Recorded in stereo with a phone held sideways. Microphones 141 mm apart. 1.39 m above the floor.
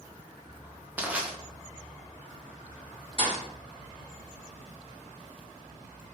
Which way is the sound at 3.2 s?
40° left (ahead or behind).